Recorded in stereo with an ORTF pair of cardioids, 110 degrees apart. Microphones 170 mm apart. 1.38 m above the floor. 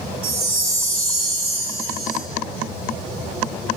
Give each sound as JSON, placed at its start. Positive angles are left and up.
{"t": 0.2, "sound": "a chime", "azimuth_deg": -60, "distance_m": 3.0}